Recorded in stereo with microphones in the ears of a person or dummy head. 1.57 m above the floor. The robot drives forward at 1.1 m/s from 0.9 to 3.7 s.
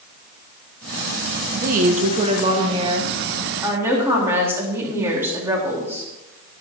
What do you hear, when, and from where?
1.5 s a woman speaking: 55° right (ahead or behind), 1.2 m; by 6.1 s 20° right (ahead or behind), 3 m